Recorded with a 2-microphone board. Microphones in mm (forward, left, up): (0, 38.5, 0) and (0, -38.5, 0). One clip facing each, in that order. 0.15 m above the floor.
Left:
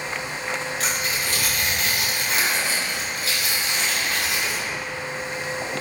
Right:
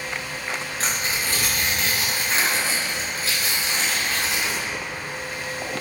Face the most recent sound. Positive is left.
turn(degrees=-35)  # may be behind; listen again after turning